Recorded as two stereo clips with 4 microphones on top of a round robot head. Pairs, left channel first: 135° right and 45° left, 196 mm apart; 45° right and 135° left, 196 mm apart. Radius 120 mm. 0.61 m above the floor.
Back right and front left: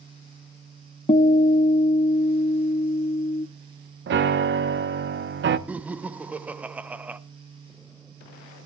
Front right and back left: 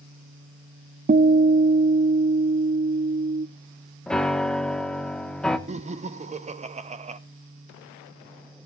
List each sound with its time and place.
1.1 s a guitar: 175° left, 0.6 m
4.1 s a piano: 40° left, 0.9 m
5.7 s laughter: 125° left, 0.6 m